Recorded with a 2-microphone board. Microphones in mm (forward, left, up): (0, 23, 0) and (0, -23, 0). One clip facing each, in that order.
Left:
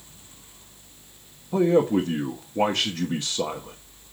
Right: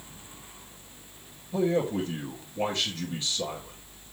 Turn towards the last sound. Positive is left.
turn(degrees=80)